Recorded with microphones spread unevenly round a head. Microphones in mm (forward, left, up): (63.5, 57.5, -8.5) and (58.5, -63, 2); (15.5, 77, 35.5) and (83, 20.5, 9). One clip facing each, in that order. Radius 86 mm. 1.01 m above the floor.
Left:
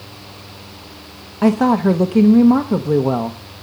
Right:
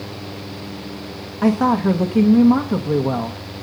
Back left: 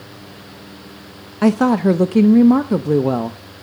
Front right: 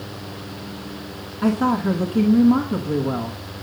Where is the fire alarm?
I don't hear a fire alarm.